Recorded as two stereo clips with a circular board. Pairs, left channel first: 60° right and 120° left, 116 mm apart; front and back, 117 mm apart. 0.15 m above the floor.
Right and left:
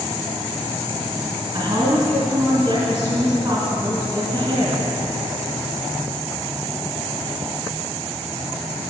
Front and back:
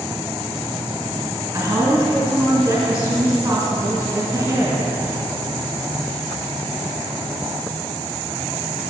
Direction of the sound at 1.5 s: 140° left.